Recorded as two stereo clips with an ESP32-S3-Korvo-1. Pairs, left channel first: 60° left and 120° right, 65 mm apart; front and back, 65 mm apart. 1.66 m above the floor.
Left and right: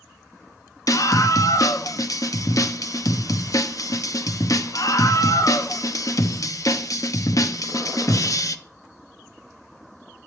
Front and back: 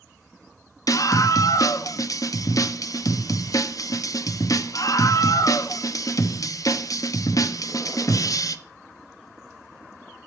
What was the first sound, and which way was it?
A scream, 30° left.